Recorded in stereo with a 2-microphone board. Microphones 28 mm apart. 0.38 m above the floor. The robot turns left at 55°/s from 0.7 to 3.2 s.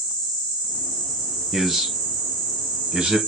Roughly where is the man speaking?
Centre.